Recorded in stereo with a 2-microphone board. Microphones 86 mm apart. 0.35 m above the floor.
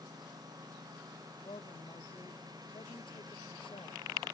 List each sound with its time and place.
0.0 s a lawn mower: 50° right (ahead or behind)
1.4 s a man speaking: 75° left (ahead or behind)